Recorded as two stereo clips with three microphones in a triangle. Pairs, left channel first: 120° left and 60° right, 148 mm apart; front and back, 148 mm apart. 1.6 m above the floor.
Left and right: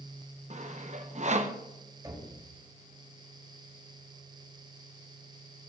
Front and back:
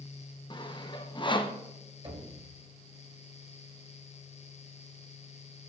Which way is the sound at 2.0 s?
125° right.